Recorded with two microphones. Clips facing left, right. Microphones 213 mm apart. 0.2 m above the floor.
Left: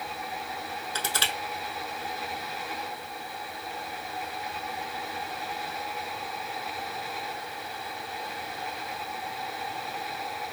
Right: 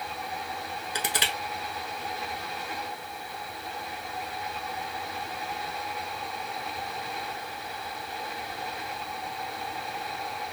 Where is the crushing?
15° right (ahead or behind), 0.6 m.